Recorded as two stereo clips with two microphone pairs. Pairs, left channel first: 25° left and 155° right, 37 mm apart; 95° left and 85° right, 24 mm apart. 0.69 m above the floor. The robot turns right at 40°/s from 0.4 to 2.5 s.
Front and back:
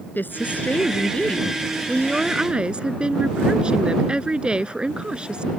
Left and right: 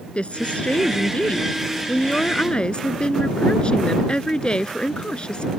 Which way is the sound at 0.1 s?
60° left.